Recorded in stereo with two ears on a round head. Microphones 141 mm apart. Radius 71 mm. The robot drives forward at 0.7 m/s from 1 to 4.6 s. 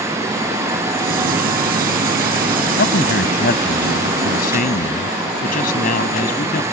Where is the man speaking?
70° left (ahead or behind); by 6.6 s 60° left (ahead or behind).